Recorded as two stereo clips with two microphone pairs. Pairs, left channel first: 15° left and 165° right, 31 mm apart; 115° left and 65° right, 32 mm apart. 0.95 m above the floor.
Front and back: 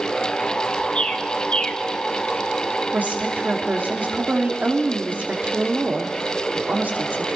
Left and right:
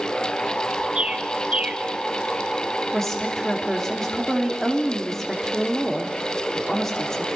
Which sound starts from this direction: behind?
A woman speaking, at 2.9 s.